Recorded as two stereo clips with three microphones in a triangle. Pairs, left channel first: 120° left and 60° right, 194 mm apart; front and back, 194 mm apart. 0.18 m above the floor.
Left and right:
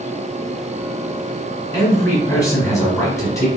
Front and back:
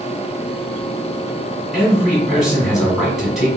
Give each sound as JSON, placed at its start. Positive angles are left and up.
{"t": 1.7, "sound": "a man speaking", "azimuth_deg": 95, "distance_m": 1.6}